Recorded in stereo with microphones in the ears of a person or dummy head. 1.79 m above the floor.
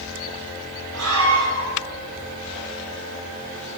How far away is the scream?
About 6.5 m.